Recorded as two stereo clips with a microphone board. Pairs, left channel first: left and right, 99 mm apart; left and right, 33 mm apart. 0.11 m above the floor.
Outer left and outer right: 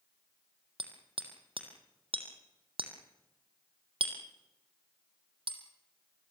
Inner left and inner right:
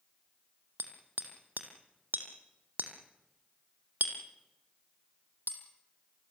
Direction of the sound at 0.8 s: 65° right (ahead or behind).